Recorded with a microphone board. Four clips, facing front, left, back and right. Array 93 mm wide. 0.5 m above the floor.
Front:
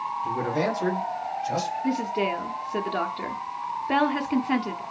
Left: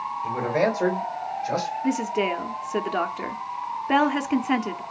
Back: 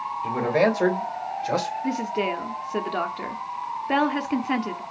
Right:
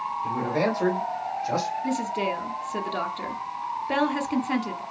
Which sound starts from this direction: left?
A woman speaking, at 1.8 s.